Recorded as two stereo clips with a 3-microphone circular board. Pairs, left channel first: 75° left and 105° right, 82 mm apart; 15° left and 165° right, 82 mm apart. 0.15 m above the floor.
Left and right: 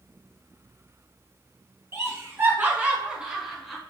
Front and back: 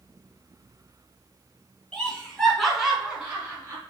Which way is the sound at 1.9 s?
60° right.